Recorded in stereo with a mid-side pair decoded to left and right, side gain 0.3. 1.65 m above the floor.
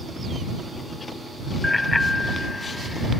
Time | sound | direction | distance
1.6 | a bicycle bell | 30° left | ?